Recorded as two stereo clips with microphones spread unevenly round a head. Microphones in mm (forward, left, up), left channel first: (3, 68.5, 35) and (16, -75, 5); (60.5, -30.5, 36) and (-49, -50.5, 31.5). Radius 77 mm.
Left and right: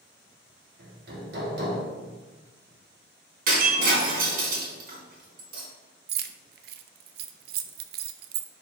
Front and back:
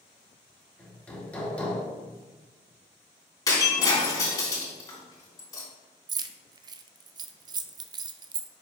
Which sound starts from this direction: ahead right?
Breaking glass, at 3.5 s.